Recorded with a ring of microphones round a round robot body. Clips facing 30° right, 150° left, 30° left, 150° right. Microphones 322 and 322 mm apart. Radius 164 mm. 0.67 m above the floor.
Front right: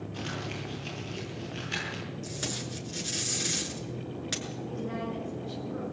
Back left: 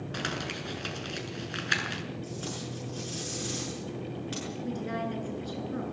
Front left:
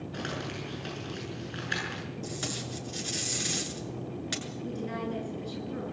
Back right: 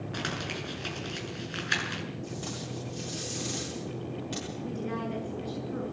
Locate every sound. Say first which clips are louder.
0.1 s crumpling: back left 1 dB, even; 140° left, 7.5 m
2.2 s tape being pulled: even, even; 15° left, 7 m
4.6 s a woman speaking: back left 1 dB, even; 110° left, 9 m